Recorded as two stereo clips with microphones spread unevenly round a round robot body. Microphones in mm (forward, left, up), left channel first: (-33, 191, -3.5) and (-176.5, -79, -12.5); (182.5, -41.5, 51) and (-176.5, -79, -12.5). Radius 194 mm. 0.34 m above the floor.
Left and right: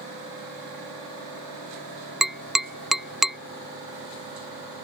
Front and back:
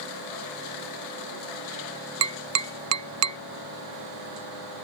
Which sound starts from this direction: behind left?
Tapping, at 2.2 s.